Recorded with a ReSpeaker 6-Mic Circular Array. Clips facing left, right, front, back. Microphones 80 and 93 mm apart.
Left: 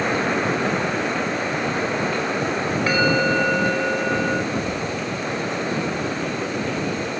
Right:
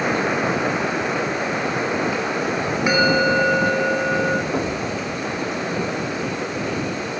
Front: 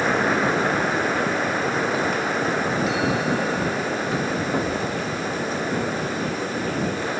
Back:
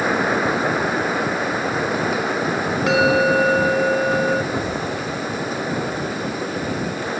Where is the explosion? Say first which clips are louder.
Right 1 dB, even; 70° right.